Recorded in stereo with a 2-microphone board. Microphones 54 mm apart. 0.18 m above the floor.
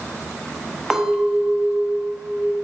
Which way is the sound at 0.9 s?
10° right (ahead or behind).